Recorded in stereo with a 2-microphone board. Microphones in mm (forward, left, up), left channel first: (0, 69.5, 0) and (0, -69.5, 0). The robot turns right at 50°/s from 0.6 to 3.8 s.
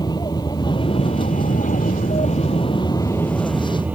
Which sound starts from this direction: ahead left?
An aircraft, at 0.0 s.